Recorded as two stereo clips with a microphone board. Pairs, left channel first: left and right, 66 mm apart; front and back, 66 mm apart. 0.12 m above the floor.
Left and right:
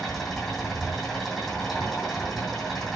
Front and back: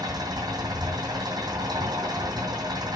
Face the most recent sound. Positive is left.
turn(degrees=-175)